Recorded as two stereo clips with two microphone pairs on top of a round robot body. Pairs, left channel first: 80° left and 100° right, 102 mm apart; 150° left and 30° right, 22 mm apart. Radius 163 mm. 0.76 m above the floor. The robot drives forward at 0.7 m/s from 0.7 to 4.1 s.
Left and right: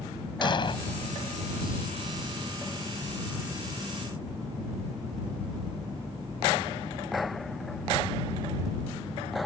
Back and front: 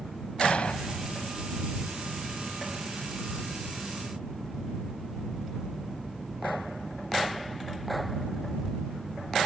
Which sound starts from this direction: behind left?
An explosion, at 0.4 s.